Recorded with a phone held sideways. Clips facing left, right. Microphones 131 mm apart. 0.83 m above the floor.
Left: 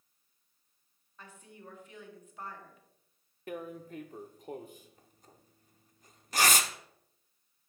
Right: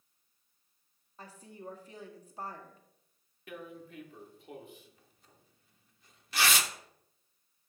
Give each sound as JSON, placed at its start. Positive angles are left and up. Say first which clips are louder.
{"t": 1.2, "sound": "a woman speaking", "louder": "right 4 dB", "side_deg": -35, "distance_m": 1.2}
{"t": 3.5, "sound": "tearing paper", "louder": "left 5 dB", "side_deg": 45, "distance_m": 0.6}